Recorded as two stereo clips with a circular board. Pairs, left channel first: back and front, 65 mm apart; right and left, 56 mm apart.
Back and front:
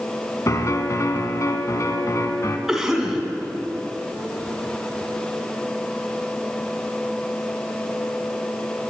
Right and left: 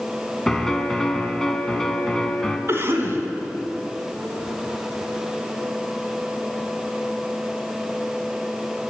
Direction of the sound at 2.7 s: 85° left.